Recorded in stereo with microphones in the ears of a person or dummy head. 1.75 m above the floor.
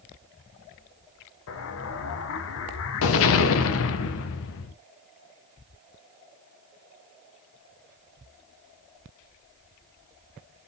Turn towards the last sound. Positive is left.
turn(degrees=65)  # may be behind; listen again after turning